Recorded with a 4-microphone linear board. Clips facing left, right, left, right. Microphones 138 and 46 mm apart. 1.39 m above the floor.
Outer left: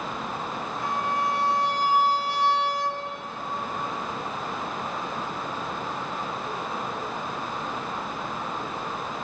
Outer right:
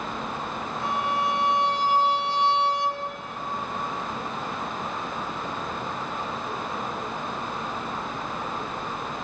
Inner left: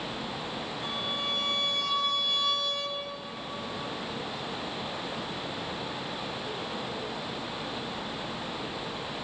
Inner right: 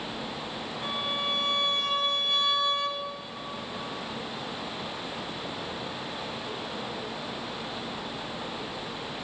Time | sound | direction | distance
0.8 | a violin | 25° right (ahead or behind) | 3 m